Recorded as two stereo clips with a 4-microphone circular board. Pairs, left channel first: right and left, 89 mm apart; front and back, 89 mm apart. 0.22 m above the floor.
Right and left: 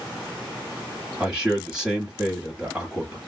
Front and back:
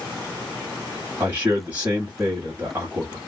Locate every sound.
1.2 s a man speaking: 160° left, 1.2 m